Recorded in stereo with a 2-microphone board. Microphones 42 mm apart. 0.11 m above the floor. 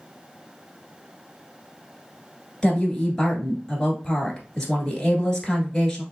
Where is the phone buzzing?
I don't hear a phone buzzing.